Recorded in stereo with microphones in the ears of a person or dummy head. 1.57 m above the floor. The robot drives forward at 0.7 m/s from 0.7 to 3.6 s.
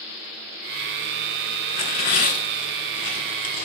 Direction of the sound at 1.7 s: 50° left (ahead or behind).